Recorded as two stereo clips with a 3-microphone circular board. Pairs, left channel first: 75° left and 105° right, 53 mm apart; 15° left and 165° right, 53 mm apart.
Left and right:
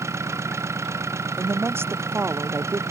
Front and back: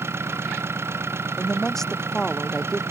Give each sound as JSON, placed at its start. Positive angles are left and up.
{"t": 0.0, "sound": "an engine running", "azimuth_deg": -130}
{"t": 1.4, "sound": "a woman speaking", "azimuth_deg": -65}